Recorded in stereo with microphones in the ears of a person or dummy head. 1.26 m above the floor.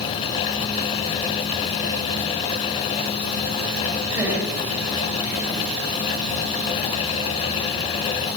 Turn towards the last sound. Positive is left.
turn(degrees=-15)  # may be behind; listen again after turning